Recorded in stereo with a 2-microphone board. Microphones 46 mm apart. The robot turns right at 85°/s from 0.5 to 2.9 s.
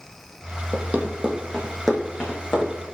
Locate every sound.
0.7 s running footsteps: 35° right (ahead or behind), 0.7 m; by 2.9 s 70° left (ahead or behind), 1.6 m